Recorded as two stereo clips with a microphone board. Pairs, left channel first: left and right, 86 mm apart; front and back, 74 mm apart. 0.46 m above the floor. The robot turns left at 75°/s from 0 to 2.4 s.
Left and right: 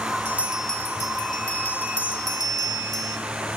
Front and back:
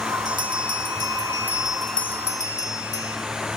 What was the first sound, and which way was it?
A bell, 155° right.